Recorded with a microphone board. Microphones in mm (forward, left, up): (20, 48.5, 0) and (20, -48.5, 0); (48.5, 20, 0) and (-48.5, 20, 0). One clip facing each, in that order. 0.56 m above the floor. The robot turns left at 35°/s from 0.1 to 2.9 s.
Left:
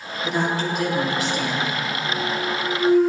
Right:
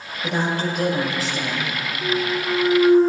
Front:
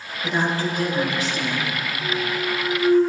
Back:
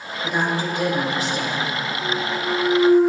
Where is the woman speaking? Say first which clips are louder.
Even, even; 100° right, 4 m; by 1.8 s 155° right, 4 m.